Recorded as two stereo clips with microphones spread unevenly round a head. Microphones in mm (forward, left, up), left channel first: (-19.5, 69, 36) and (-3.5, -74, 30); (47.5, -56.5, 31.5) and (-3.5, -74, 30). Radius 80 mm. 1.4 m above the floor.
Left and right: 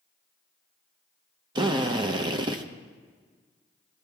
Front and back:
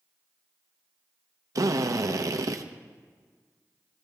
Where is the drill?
145° right, 0.9 m.